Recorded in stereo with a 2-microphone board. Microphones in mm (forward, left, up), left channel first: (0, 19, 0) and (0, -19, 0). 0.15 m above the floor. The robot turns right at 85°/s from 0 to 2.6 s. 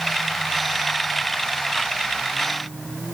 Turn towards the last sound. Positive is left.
No sound to turn to.